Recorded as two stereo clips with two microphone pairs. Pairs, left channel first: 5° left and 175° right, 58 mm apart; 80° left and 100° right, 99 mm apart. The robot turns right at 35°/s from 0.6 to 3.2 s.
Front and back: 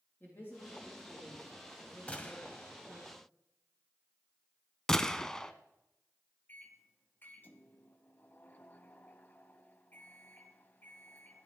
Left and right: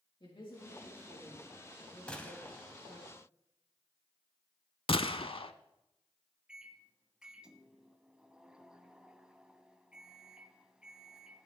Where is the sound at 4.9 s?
90° left, 0.5 m.